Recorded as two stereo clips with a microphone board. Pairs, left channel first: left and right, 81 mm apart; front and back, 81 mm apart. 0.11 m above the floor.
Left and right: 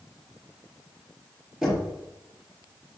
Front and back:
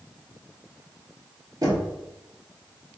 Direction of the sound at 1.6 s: 175° right.